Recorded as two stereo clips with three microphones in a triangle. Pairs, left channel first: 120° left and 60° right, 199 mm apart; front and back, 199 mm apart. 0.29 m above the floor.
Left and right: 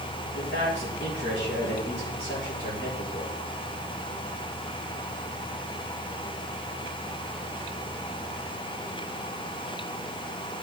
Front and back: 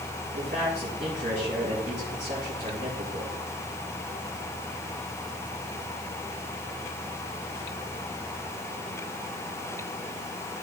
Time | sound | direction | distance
0.3 | a man speaking | 140° left | 5 m